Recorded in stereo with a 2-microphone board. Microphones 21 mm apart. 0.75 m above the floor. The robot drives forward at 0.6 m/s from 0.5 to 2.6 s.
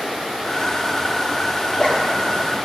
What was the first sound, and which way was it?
A zipper, 50° left (ahead or behind).